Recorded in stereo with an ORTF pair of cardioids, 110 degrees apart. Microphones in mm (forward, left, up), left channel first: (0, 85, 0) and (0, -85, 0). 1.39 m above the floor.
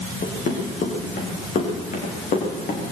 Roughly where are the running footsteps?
Ahead left.